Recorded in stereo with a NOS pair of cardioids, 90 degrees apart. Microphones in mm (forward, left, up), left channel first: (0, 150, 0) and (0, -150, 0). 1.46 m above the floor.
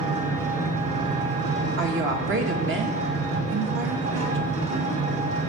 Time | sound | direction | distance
0.0 | an engine running | 55° right | 4 m
1.8 | a woman speaking | 40° right | 1.5 m